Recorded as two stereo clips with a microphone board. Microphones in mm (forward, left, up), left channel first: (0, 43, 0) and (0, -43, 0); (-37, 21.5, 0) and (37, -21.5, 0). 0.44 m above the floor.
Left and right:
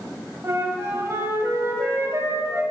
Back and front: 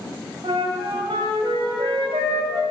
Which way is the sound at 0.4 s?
30° right.